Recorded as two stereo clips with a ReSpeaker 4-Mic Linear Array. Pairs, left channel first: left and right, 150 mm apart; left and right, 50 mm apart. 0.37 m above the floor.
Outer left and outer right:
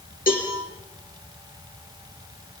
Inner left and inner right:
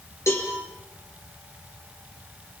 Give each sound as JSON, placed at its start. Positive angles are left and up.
{"t": 0.3, "sound": "a cowbell", "side_deg": 70, "distance_m": 6.5}